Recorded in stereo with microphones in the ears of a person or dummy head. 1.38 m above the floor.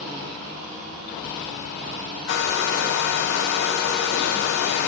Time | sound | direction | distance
2.3 | a hair dryer | 60° left (ahead or behind) | 0.6 m